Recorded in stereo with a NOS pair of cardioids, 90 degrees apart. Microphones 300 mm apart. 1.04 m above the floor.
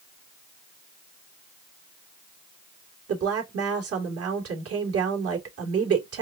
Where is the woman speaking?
50° right, 2.5 m.